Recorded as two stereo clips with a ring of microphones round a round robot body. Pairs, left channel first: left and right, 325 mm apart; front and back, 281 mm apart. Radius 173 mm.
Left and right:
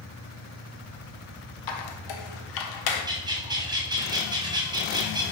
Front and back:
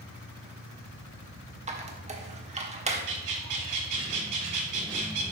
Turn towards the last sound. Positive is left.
turn(degrees=-165)